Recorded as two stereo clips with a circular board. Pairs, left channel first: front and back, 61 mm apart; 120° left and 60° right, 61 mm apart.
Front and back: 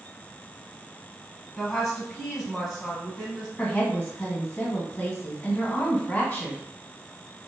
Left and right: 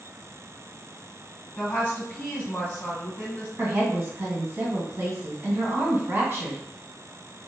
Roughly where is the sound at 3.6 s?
Ahead right.